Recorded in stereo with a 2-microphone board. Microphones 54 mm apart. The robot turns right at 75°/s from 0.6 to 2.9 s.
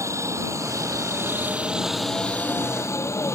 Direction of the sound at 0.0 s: 70° right (ahead or behind).